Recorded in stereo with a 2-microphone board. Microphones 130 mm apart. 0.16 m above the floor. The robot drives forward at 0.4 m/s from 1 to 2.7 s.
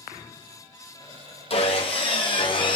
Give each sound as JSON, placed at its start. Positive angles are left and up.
{"t": 1.5, "sound": "sawing", "side_deg": 50, "distance_m": 1.6}